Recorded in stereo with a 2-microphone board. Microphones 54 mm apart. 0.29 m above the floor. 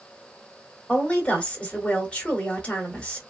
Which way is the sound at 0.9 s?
20° left (ahead or behind).